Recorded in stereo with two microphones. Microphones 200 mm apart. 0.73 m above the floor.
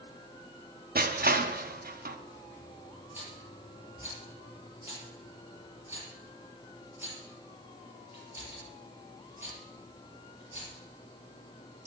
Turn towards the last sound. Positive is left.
turn(degrees=-10)  # may be behind; listen again after turning